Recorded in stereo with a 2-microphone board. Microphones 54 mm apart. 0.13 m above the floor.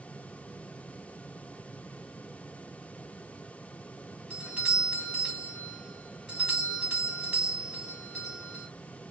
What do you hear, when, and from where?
4.3 s a doorbell: 25° right (ahead or behind), 2 m